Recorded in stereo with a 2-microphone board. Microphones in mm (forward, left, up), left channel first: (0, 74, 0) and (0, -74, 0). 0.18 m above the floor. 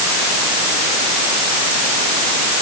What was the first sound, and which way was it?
Only background noise.